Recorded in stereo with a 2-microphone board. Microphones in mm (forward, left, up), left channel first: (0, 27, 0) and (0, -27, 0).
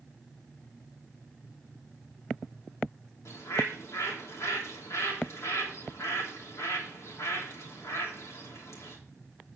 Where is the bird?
65° left (ahead or behind), 3 m.